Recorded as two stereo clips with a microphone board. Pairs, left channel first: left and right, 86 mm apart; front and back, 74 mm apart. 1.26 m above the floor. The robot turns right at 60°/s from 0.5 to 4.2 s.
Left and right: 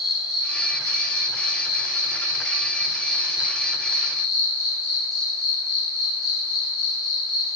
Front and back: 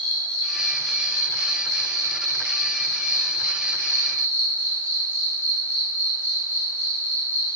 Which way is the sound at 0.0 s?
175° right.